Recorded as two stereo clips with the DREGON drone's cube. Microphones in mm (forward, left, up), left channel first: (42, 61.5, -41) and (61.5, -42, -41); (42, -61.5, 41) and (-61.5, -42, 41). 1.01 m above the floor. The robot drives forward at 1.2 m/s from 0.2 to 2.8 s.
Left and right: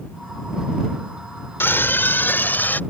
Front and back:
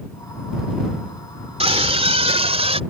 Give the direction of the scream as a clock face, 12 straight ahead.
6 o'clock.